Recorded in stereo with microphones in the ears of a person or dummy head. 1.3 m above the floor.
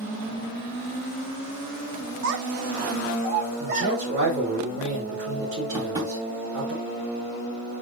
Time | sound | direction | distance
2.2 | a child speaking | 70° right (ahead or behind) | 1.1 m
3.6 | a man speaking | 40° right (ahead or behind) | 4 m
5.7 | tapping | 15° right (ahead or behind) | 2.5 m